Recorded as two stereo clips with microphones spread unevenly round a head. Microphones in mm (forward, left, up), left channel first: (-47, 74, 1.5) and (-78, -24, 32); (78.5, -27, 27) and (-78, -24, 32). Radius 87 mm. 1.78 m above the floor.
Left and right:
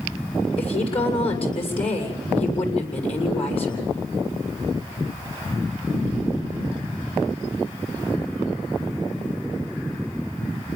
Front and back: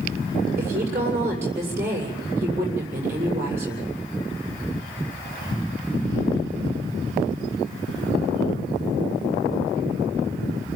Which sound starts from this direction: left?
A woman speaking, at 0.6 s.